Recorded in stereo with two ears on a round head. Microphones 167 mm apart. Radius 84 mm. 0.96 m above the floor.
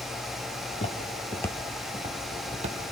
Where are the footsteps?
35° left (ahead or behind), 1.4 m; by 2.9 s 35° right (ahead or behind), 1.9 m.